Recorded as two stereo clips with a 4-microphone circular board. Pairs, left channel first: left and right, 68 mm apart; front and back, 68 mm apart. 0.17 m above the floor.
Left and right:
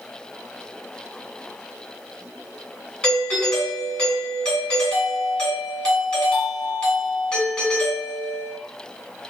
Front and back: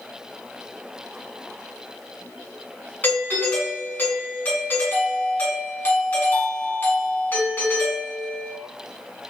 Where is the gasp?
I don't hear a gasp.